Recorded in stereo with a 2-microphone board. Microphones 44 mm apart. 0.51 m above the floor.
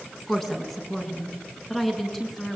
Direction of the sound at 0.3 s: 10° left (ahead or behind).